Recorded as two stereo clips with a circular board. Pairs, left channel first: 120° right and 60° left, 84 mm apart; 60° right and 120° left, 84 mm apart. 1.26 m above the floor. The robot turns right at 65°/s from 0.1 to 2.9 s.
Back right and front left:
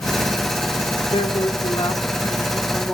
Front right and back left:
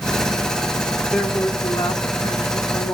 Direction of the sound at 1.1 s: 140° right.